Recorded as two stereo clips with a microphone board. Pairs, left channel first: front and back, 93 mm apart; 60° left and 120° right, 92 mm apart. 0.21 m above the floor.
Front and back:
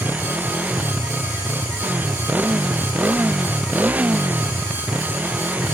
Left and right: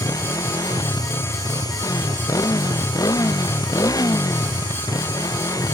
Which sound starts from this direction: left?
A motorcycle, at 0.0 s.